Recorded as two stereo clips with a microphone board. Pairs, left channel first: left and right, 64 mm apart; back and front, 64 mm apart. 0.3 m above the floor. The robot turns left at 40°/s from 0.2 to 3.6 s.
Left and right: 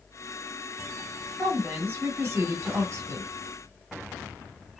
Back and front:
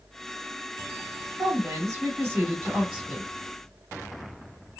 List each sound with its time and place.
1.4 s a woman speaking: 15° right, 2.5 m; by 3.3 s 90° right, 2.5 m